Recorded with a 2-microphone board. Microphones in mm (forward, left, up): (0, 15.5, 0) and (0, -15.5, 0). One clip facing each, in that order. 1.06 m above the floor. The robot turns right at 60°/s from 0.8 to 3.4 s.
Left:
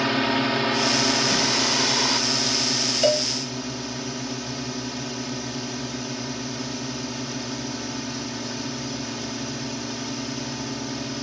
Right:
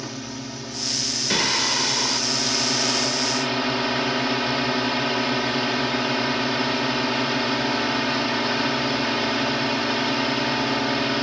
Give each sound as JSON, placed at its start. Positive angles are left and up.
{"t": 0.0, "sound": "a drone", "azimuth_deg": 90}
{"t": 1.3, "sound": "singing", "azimuth_deg": -40}
{"t": 3.0, "sound": "a cowbell", "side_deg": 75}